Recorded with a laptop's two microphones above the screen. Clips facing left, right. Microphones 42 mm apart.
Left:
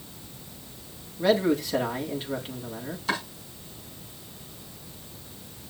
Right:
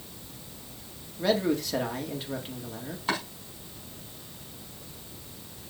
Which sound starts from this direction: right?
Chopping, at 3.1 s.